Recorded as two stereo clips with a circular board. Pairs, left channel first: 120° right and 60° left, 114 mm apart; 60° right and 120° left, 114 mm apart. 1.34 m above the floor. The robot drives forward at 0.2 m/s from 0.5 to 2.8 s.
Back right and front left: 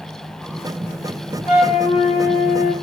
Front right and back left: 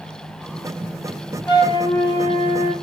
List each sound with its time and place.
1.5 s a flute: 115° right, 3 m; by 2.7 s 120° right, 3 m